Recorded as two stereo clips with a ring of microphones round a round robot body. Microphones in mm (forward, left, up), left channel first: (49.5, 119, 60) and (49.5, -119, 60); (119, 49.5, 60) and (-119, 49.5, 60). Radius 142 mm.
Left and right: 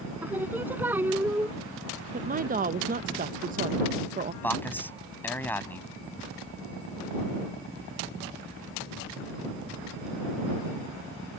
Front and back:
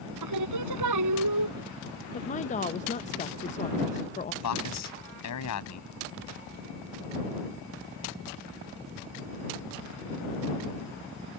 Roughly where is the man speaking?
Ahead.